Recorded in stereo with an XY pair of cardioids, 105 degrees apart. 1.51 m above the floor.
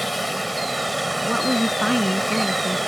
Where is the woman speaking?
Straight ahead.